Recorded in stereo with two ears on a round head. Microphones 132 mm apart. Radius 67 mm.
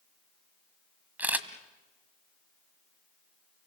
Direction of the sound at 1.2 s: 10° right (ahead or behind).